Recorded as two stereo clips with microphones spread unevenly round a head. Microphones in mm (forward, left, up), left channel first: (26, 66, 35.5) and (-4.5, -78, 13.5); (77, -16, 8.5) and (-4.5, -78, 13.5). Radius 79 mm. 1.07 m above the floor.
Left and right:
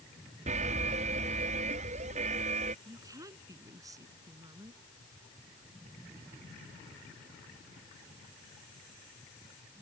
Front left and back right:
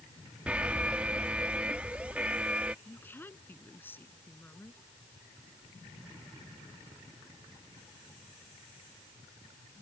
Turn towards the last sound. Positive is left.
turn(degrees=-35)